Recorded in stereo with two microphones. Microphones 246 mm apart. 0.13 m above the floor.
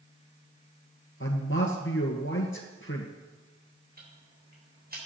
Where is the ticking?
40° right (ahead or behind), 6.5 m.